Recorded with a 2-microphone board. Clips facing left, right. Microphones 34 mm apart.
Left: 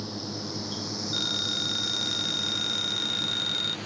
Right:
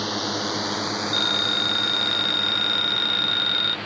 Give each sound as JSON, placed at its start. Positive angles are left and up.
{"t": 0.0, "sound": "a drone", "side_deg": -75}
{"t": 1.1, "sound": "a phone ringing", "side_deg": -35}